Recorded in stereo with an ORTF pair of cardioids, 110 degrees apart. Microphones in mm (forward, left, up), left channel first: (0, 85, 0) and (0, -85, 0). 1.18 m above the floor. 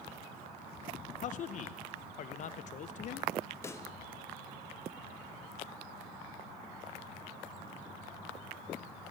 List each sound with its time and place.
1.2 s a man speaking: 50° left, 0.8 m
3.6 s a pop: 15° left, 0.7 m